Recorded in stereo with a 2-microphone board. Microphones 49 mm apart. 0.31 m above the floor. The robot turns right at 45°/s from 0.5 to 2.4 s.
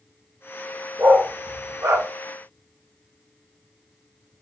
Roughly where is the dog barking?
Right.